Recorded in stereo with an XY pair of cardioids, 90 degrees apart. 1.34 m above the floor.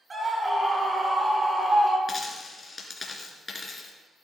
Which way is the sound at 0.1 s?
35° right.